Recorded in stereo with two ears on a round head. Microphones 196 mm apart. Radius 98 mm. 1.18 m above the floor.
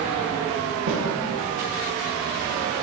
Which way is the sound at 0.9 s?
60° right (ahead or behind).